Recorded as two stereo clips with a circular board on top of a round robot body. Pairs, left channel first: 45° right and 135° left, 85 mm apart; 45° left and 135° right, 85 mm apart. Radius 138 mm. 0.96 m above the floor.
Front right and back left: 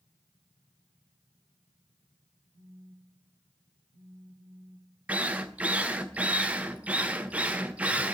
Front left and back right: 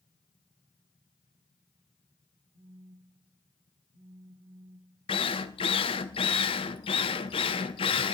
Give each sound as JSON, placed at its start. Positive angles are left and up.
{"t": 2.5, "sound": "a phone buzzing", "azimuth_deg": 160, "distance_m": 8.0}
{"t": 5.1, "sound": "a drill", "azimuth_deg": 60, "distance_m": 0.6}